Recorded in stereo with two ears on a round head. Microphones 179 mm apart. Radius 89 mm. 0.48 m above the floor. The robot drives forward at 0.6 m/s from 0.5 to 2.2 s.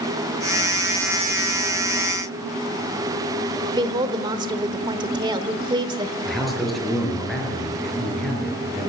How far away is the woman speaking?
About 1.2 m.